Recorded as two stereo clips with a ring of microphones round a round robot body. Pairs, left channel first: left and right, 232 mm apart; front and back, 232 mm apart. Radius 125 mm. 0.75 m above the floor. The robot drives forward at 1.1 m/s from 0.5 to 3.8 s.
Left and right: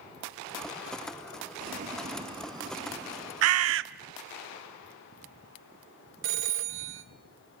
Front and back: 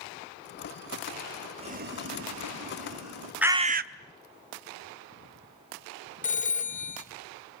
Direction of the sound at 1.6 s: 120° right.